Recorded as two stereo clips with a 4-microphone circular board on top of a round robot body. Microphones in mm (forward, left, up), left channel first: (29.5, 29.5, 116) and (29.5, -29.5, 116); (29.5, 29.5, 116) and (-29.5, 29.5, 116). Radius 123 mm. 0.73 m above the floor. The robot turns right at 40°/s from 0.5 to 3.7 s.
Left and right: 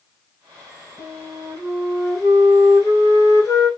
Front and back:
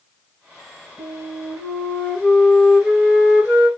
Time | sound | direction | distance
1.0 | a flute | 25° left | 1.9 m